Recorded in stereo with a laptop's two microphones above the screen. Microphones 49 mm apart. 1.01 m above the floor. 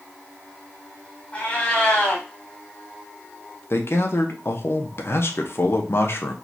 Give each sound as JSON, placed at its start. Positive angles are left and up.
{"t": 1.3, "sound": "a cat meowing", "side_deg": 20, "distance_m": 1.4}
{"t": 3.7, "sound": "a man speaking", "side_deg": 55, "distance_m": 0.7}